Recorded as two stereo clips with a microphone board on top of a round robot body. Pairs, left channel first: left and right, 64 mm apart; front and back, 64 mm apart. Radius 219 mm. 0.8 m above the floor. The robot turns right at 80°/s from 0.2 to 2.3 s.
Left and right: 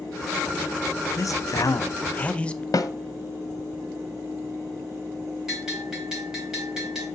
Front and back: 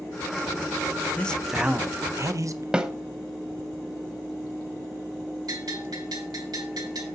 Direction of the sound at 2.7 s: 105° left.